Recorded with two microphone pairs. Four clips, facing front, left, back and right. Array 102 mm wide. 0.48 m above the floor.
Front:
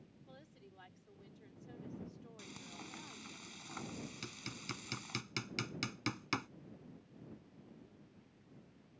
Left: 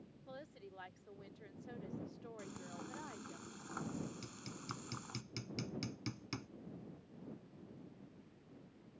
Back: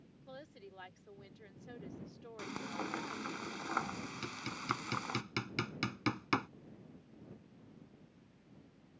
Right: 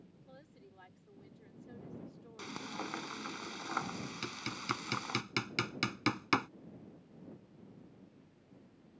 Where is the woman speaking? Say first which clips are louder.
Left 7 dB, back 9 dB; 155° left.